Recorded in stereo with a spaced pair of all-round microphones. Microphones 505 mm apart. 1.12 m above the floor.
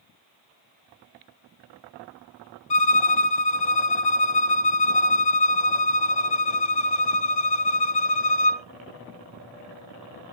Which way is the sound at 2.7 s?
55° left (ahead or behind).